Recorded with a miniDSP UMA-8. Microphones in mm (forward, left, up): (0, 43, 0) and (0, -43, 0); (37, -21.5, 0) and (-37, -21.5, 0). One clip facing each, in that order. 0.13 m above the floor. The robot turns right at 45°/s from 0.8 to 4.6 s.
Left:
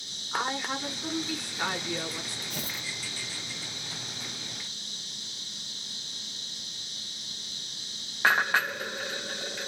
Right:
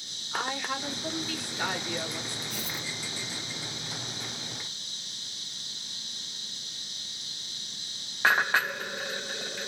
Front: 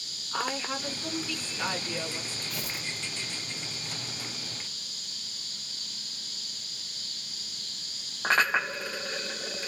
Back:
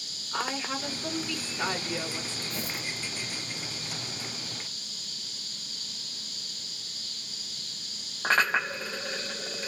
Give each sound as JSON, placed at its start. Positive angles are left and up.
{"t": 0.3, "sound": "a woman speaking", "azimuth_deg": 95, "distance_m": 1.1}
{"t": 2.5, "sound": "tearing paper", "azimuth_deg": 125, "distance_m": 1.2}